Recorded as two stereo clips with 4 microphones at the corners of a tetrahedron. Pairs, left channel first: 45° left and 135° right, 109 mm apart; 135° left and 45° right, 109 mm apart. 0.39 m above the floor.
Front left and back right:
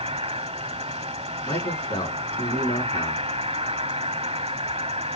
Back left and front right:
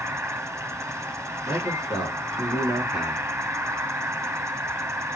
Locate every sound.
0.0 s an insect: 110° right, 1.0 m
1.4 s a man speaking: 5° left, 5 m